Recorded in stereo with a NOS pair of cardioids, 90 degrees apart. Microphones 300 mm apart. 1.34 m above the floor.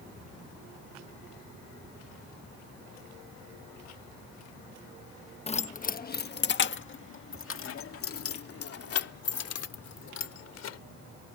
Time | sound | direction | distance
5.5 | keys jangling | 20° left | ?